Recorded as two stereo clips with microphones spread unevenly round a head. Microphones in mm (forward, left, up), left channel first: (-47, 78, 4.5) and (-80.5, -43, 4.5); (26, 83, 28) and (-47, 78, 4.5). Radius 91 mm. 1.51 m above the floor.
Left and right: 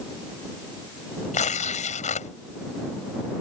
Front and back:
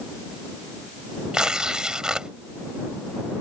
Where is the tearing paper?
100° left.